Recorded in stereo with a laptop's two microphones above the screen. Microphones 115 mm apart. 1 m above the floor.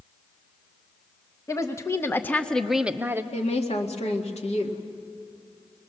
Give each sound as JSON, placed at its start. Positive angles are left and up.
{"t": 1.5, "sound": "a woman speaking", "side_deg": 25, "distance_m": 1.4}
{"t": 3.3, "sound": "a woman speaking", "side_deg": 65, "distance_m": 2.0}